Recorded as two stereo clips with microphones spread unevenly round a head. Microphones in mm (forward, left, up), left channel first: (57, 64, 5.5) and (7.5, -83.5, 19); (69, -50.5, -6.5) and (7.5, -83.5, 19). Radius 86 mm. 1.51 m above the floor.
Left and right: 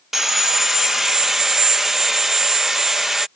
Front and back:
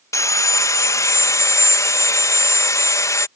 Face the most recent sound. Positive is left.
turn(degrees=-25)